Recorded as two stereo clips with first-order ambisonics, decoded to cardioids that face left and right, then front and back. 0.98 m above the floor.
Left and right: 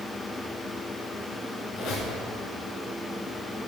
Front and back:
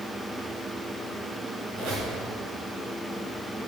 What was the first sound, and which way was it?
A squeak, 135° left.